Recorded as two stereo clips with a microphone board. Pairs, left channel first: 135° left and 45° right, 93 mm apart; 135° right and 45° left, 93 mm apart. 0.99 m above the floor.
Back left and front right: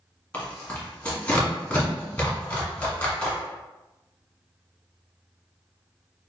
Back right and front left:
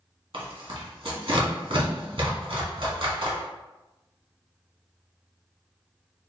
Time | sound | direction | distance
0.3 | tearing paper | 60° left | 1.4 m